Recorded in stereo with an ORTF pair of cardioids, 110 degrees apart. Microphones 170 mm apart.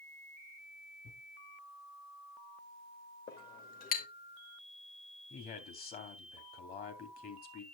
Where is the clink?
60° left, 2 m.